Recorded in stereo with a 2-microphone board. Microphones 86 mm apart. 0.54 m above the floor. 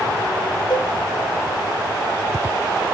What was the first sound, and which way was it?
A cowbell, 65° left (ahead or behind).